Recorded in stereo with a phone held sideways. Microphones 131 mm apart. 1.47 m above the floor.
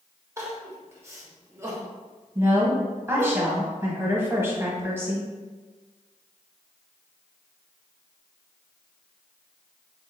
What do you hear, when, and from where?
0.4 s crying: 20° right (ahead or behind), 0.9 m
2.4 s a woman speaking: 15° right (ahead or behind), 1.1 m